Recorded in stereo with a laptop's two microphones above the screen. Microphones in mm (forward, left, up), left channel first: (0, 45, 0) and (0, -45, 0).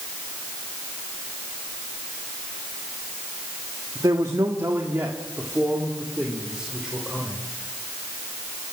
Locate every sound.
4.0 s a man speaking: 50° right (ahead or behind), 1.5 m; by 7.4 s 5° right (ahead or behind), 3.5 m